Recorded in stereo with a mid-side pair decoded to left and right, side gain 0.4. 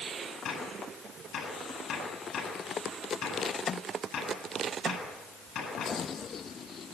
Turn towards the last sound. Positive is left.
turn(degrees=70)